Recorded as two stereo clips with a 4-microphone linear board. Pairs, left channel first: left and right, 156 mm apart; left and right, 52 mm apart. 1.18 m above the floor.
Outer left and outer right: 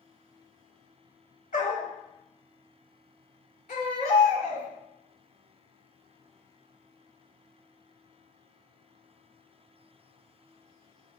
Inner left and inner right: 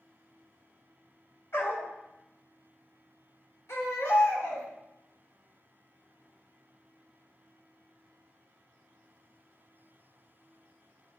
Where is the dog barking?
70° left (ahead or behind), 2 m.